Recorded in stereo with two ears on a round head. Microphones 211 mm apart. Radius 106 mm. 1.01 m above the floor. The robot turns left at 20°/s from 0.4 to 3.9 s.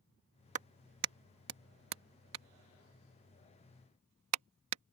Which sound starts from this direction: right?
A clap, at 0.6 s.